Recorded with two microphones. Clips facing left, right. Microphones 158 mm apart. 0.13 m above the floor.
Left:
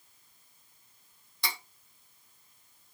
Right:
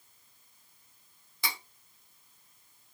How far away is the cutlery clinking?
About 1.9 m.